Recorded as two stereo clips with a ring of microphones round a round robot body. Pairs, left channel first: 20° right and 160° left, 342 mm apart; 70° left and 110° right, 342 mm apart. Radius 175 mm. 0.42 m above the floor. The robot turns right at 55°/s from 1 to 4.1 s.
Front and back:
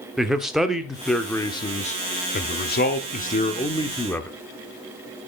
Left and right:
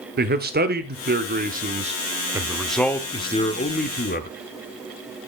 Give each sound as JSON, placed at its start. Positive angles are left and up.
{"t": 0.2, "sound": "a man speaking", "azimuth_deg": -115, "distance_m": 1.1}